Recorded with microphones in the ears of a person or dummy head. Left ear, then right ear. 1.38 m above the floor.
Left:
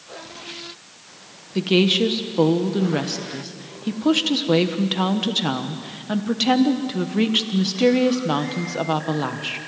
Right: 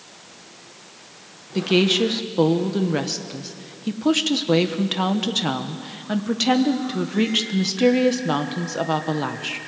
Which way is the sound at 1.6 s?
5° right (ahead or behind).